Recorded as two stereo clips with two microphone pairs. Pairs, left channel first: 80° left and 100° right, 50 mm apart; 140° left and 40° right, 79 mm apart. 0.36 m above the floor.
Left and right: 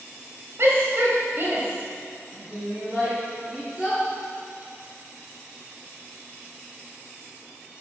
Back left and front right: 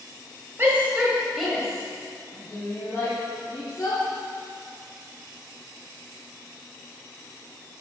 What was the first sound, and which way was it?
A shout, 90° right.